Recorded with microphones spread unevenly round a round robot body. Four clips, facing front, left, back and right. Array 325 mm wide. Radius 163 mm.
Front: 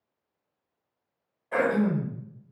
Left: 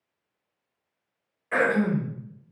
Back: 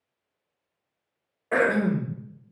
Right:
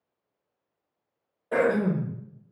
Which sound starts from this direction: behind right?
Throat clearing, at 1.5 s.